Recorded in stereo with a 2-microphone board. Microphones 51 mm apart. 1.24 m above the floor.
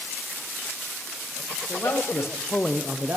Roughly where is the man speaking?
Left.